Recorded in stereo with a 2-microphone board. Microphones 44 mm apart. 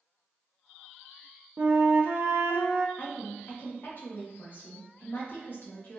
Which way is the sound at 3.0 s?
45° left (ahead or behind).